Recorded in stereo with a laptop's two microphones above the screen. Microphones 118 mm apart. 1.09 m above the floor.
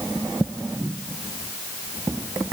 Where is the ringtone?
No ringtone in this recording.